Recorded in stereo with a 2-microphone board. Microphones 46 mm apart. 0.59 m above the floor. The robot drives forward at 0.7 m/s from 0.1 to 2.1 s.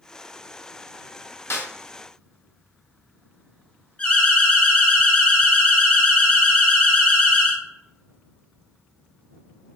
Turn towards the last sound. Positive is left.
turn(degrees=25)  # may be behind; listen again after turning